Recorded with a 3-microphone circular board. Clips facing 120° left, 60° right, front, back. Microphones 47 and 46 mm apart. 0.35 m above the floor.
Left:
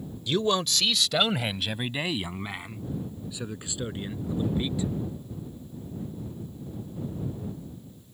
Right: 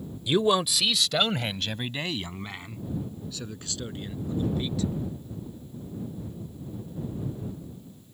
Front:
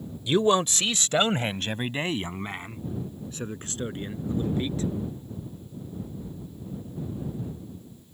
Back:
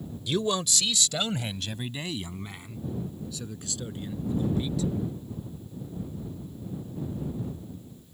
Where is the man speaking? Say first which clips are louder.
Right 3 dB, front 6 dB; 10° right; by 4.9 s 50° left.